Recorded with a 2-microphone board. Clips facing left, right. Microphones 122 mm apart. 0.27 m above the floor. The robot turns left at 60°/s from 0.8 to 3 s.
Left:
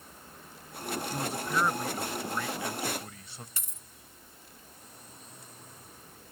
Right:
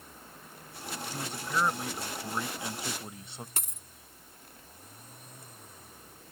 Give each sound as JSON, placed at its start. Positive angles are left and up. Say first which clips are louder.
{"t": 1.1, "sound": "a man speaking", "louder": "left 1 dB", "side_deg": 10}
{"t": 3.6, "sound": "a dropped coin", "louder": "right 5 dB", "side_deg": -65}